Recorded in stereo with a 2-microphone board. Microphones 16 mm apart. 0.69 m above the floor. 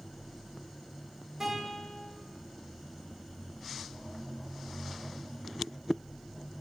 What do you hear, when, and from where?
1.4 s a guitar: 30° right (ahead or behind), 2.0 m